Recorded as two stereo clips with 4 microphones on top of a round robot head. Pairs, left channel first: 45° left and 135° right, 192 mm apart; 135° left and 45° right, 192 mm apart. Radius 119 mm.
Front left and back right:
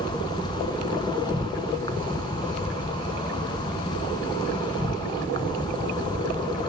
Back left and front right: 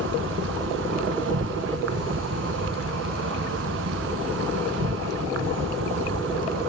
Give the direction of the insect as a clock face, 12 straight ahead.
1 o'clock.